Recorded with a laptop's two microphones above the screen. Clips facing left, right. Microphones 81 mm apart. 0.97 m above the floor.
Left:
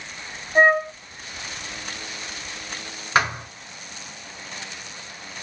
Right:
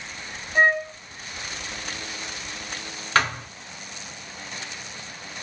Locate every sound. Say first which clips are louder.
0.6 s a flute: left 3 dB; 25° left (ahead or behind), 0.9 m
3.1 s a thud: left 1 dB; 15° left (ahead or behind), 1.7 m